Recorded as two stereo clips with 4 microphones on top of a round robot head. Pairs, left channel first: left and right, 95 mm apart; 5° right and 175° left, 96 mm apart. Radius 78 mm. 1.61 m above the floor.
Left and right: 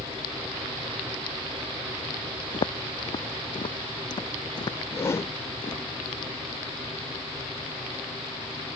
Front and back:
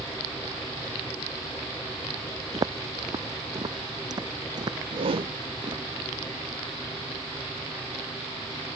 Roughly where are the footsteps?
Behind left.